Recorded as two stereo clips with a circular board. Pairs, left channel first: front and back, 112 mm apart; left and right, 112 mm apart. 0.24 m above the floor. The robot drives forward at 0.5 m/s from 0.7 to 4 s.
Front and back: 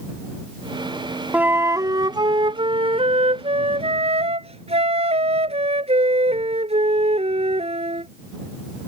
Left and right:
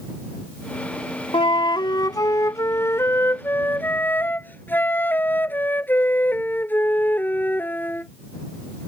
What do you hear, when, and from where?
1.3 s a flute: 105° left; by 8.1 s 165° left